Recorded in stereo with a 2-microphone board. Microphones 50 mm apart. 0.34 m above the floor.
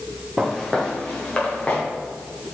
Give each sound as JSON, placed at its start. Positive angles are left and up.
{"t": 0.4, "sound": "footsteps", "side_deg": -5, "distance_m": 2.0}